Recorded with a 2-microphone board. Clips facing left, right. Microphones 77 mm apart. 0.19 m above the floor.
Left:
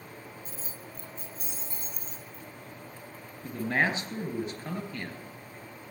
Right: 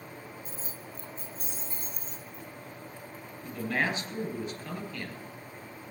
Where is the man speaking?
40° left (ahead or behind), 2.5 m.